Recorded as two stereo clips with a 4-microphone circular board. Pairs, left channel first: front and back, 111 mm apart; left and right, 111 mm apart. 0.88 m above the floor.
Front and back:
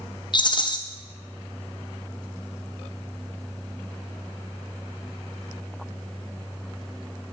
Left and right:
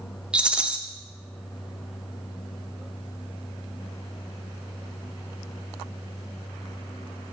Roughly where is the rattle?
Ahead.